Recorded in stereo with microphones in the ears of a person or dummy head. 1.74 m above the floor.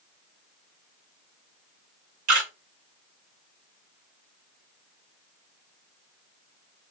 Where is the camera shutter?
65° right (ahead or behind), 1.5 m.